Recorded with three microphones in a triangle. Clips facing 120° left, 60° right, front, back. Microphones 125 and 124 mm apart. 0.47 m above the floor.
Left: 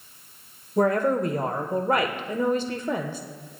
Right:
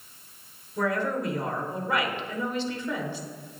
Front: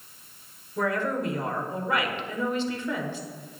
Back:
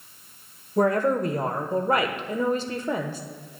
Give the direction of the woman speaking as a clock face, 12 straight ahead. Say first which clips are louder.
Left 6 dB, back 6 dB; 7 o'clock.